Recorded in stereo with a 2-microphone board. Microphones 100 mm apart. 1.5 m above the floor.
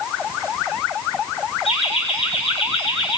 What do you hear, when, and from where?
1.6 s laughter: 75° left (ahead or behind), 6 m; by 3.2 s 60° left (ahead or behind), 5.5 m